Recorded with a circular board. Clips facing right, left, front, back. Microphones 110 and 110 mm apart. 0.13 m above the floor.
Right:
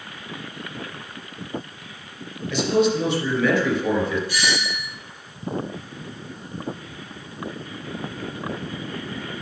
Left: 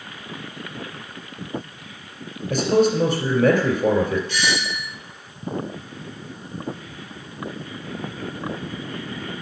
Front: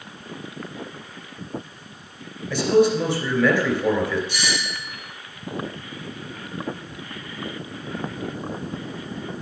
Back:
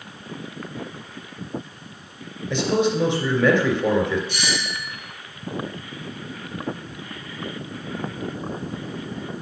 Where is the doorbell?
170° right, 3 m.